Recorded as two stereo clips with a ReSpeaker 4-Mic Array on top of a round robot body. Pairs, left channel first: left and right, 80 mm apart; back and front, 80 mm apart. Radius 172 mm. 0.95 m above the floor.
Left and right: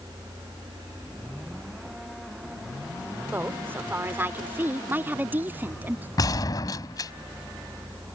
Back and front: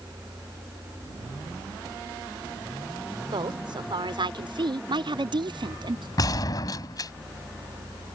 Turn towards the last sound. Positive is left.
turn(degrees=135)